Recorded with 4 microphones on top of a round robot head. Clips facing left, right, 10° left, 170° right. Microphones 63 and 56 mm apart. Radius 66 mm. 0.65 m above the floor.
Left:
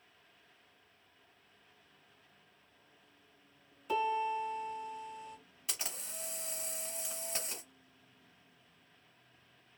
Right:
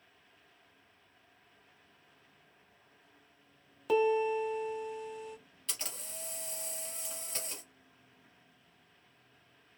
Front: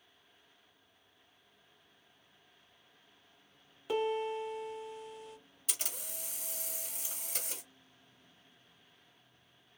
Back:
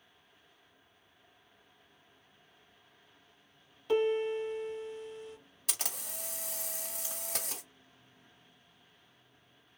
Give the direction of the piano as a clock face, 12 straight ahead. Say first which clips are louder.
Right 5 dB, back 4 dB; 2 o'clock.